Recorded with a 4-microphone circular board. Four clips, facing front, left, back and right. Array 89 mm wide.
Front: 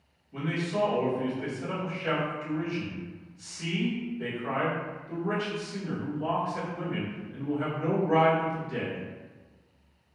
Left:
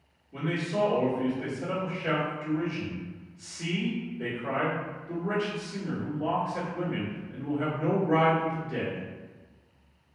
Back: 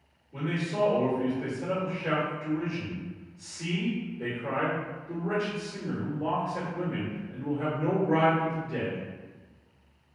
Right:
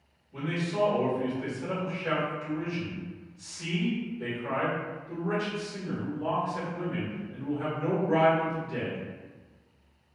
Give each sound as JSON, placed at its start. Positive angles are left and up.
{"t": 0.3, "sound": "a man speaking", "azimuth_deg": 85, "distance_m": 1.9}